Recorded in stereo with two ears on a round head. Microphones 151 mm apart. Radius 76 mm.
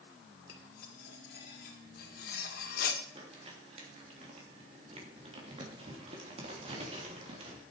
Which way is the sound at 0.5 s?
60° left (ahead or behind).